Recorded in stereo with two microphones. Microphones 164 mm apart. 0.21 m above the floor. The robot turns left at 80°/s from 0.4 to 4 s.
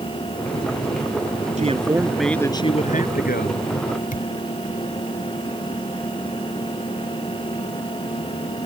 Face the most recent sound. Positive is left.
turn(degrees=55)  # may be behind; listen again after turning